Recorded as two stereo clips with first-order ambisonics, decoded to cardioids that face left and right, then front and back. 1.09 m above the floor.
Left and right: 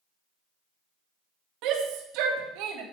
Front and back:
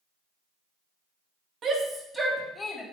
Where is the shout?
120° right, 1.9 m; by 2.8 s 80° right, 2 m.